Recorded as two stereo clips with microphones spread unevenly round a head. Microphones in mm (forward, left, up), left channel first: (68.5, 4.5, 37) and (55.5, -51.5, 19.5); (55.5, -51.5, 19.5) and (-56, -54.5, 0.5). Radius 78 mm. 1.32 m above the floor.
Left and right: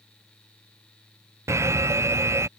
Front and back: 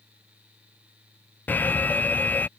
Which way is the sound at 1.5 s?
75° right.